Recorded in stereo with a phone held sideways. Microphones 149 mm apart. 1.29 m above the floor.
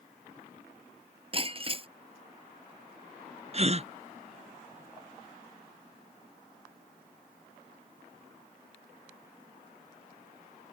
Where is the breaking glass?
35° right (ahead or behind).